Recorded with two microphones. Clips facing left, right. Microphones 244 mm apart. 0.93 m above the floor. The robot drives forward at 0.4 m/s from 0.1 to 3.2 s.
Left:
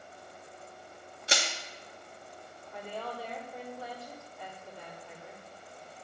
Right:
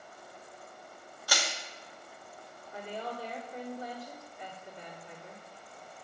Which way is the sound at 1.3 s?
25° left (ahead or behind).